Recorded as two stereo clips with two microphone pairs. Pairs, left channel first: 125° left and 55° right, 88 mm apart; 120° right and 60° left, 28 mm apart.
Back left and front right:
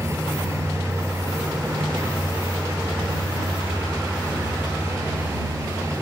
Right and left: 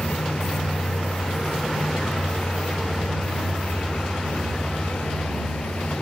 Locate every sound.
0.0 s a vehicle: 110° right